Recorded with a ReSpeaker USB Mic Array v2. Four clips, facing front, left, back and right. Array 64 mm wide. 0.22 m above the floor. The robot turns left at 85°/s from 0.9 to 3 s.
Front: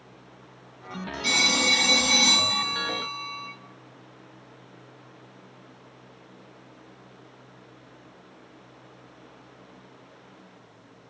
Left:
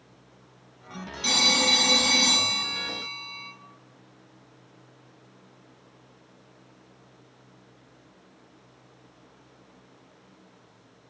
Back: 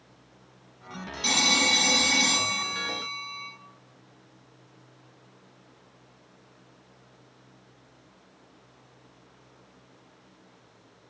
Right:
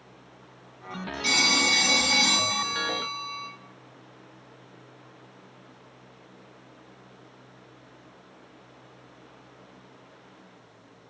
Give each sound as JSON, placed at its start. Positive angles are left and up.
{"t": 1.2, "sound": "a phone ringing", "azimuth_deg": 135, "distance_m": 1.4}